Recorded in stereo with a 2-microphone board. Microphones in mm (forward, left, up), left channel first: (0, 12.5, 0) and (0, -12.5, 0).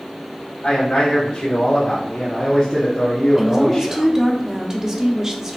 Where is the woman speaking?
25° right (ahead or behind), 0.9 m.